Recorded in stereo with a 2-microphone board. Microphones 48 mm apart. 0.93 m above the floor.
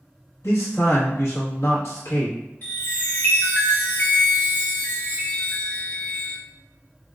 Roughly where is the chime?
Left.